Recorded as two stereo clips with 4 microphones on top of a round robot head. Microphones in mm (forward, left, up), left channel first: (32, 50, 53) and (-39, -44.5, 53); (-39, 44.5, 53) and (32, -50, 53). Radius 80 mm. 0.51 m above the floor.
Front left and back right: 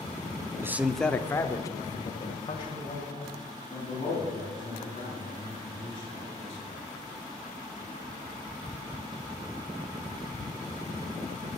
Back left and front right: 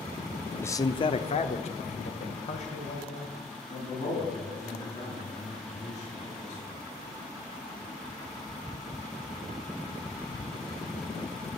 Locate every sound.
0.6 s a man speaking: 175° right, 0.9 m; by 6.8 s 95° left, 9 m